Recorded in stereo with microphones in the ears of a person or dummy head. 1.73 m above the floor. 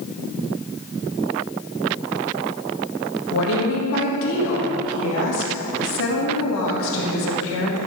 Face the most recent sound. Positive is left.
turn(degrees=70)  # may be behind; listen again after turning